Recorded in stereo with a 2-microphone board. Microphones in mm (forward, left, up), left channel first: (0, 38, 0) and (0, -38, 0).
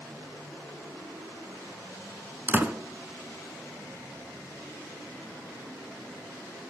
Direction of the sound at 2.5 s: 25° right (ahead or behind).